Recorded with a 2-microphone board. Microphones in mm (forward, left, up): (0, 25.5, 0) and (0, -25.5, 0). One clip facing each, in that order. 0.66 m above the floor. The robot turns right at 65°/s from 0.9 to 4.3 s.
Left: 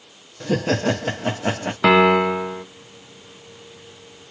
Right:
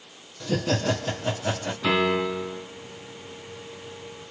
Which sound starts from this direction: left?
A piano, at 1.8 s.